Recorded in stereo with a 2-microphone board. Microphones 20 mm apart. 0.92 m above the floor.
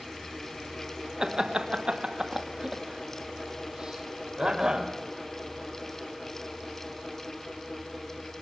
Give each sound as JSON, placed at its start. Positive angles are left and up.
{"t": 1.2, "sound": "laughter", "side_deg": -30, "distance_m": 1.0}